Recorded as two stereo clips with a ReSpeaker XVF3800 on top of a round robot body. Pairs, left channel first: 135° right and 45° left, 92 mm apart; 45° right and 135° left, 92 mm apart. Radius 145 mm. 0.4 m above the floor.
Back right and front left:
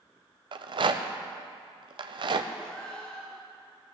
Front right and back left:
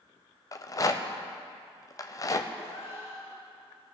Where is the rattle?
10° left, 0.7 m.